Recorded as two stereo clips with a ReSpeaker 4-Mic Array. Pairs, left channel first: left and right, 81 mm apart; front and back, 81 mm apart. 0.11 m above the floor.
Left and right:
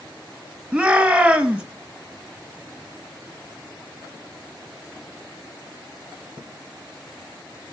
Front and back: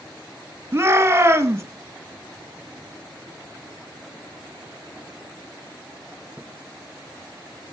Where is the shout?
155° right, 1.6 m.